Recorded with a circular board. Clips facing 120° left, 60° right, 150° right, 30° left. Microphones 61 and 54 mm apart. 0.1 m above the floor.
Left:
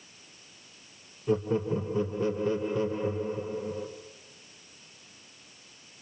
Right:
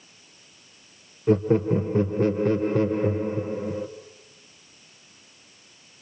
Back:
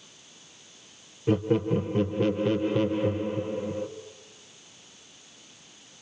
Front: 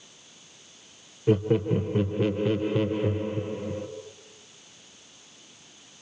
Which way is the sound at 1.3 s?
50° right.